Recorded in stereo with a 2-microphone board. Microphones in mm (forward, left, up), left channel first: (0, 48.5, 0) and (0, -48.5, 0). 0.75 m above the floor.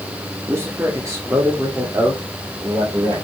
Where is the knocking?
I don't hear knocking.